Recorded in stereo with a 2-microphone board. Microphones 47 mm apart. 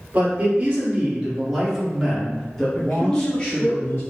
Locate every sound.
0.1 s a man speaking: 40° right (ahead or behind), 1.7 m; by 3.7 s 25° left (ahead or behind), 1.9 m
2.7 s a man speaking: 50° left (ahead or behind), 1.8 m